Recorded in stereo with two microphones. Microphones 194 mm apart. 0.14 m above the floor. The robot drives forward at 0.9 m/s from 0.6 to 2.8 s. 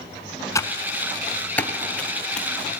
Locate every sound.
0.6 s typing on a keyboard: 15° left (ahead or behind), 0.6 m; by 2.5 s 5° left (ahead or behind), 1.9 m